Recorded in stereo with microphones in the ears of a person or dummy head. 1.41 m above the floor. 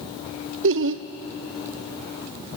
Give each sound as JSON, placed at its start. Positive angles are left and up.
{"t": 0.6, "sound": "laughter", "side_deg": -60, "distance_m": 0.5}